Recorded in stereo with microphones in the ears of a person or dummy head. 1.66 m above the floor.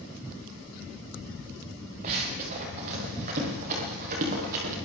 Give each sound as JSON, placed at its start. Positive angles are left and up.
{"t": 2.0, "sound": "running footsteps", "side_deg": -45, "distance_m": 8.5}